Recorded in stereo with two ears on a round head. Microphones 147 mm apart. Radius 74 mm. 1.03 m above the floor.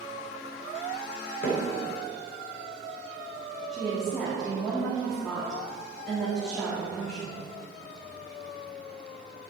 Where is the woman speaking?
Centre (ahead or behind), 2 m.